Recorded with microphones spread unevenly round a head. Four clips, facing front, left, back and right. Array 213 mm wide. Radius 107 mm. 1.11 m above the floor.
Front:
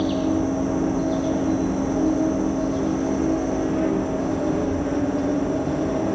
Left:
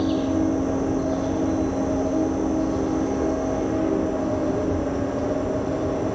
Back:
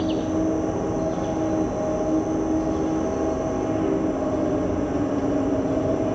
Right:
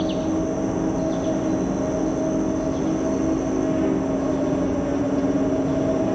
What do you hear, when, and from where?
0.0 s an insect: 115° right, 9.5 m